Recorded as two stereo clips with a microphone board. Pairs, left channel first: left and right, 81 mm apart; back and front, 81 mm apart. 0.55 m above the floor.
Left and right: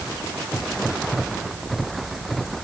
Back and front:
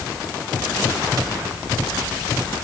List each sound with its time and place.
Only background noise.